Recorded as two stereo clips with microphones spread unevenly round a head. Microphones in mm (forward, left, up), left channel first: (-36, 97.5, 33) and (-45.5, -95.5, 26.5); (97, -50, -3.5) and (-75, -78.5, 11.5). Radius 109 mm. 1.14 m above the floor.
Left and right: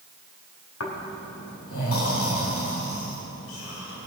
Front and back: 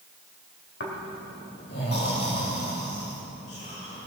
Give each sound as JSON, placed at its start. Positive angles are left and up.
{"t": 0.8, "sound": "snoring", "azimuth_deg": 55, "distance_m": 2.0}